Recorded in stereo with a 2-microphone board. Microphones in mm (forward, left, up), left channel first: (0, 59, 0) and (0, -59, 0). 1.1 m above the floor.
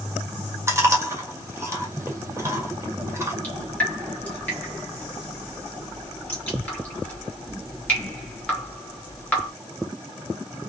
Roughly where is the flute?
No flute in this recording.